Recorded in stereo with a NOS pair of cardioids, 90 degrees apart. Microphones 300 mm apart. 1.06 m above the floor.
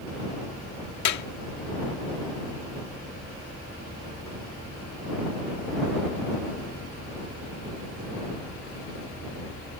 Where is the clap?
65° left.